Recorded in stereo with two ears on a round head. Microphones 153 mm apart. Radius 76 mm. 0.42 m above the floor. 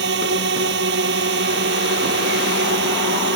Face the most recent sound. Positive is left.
turn(degrees=-70)  # may be behind; listen again after turning